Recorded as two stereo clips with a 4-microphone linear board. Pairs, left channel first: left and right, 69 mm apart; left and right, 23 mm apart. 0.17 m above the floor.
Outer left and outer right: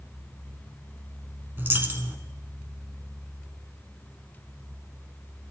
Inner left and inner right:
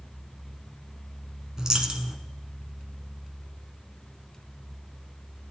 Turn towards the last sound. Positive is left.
turn(degrees=-30)  # may be behind; listen again after turning